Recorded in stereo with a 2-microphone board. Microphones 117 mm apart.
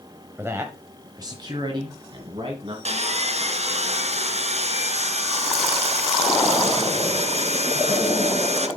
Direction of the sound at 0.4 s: 20° right (ahead or behind).